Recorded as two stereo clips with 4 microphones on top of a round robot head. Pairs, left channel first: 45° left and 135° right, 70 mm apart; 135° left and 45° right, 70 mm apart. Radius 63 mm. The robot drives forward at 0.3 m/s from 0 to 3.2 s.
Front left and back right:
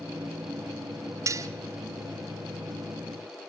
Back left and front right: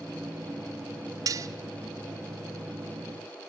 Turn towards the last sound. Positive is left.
turn(degrees=-115)